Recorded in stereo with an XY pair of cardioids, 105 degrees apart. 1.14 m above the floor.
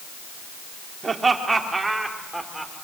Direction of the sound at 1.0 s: 30° right.